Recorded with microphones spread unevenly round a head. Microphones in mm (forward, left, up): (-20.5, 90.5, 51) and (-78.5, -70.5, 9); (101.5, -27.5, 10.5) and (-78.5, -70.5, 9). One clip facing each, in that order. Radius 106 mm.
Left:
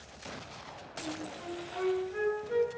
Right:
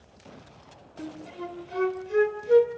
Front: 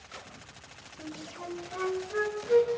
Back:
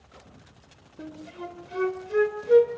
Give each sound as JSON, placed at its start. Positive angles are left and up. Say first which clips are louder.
{"t": 1.0, "sound": "a flute", "louder": "right 3 dB, back 3 dB", "azimuth_deg": -120, "distance_m": 2.5}